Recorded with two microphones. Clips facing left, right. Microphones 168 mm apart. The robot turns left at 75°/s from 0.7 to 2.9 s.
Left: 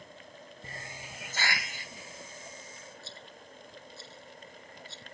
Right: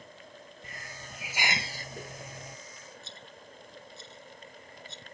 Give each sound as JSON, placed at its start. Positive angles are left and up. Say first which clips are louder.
{"t": 0.6, "sound": "a hiss", "louder": "left 3 dB", "azimuth_deg": 35}
{"t": 3.0, "sound": "a rattle", "louder": "even", "side_deg": -20}